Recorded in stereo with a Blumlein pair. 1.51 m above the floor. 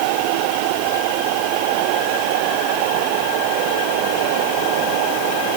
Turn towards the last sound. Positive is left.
No sound to turn to.